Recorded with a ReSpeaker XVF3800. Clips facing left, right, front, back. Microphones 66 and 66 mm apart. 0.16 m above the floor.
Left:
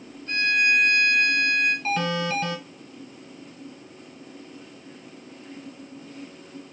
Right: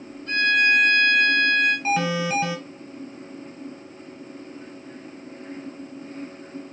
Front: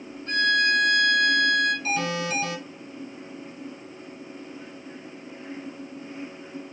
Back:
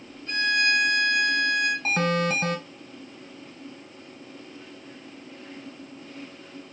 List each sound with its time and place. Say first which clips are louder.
0.3 s a violin: right 3 dB, front 2 dB; 50° right, 2.5 m
1.9 s an alarm: right 2 dB, back 3 dB; 160° right, 1.1 m